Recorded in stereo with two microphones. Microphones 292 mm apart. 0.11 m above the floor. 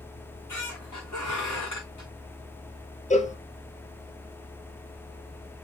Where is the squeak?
85° left, 4.5 m.